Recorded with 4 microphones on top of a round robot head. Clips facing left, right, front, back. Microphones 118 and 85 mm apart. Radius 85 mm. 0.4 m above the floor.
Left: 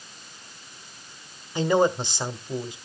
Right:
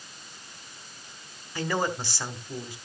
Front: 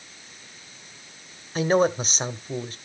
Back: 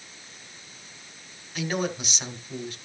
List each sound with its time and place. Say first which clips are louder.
1.6 s a man speaking: left 8 dB, front 8 dB; 30° left, 1.2 m